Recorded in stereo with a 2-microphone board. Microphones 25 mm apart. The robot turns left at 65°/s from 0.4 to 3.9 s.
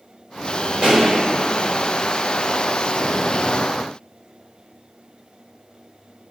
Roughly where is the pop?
Right.